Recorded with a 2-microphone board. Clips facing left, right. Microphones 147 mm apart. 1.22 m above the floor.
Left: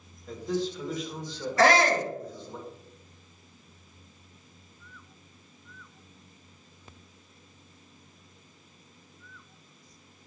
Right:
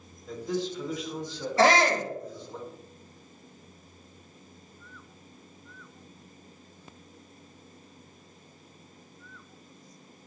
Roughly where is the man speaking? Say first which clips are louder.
Left 1 dB; centre.